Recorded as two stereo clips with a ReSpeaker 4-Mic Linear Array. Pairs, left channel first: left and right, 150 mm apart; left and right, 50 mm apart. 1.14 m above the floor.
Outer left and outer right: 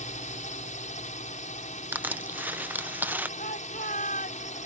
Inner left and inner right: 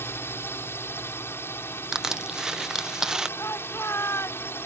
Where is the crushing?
10° right (ahead or behind).